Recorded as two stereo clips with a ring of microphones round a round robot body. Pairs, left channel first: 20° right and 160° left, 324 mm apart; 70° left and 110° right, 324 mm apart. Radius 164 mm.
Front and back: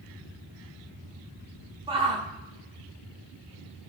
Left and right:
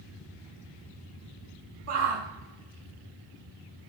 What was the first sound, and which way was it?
A shout, 130° right.